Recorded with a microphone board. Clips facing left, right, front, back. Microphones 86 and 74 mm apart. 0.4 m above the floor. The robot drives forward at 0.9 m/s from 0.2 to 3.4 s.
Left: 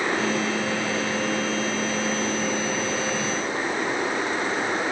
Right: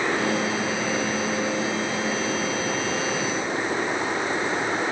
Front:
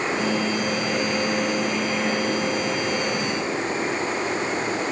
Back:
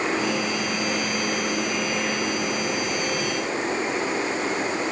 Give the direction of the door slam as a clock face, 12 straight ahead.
No door slam in this recording.